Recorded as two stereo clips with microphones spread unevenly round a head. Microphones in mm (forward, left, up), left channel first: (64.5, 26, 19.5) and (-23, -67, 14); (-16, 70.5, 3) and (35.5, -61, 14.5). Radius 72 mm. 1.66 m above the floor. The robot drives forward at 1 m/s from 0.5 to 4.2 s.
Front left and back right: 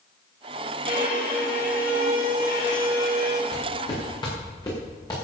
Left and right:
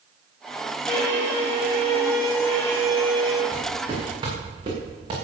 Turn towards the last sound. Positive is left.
turn(degrees=-15)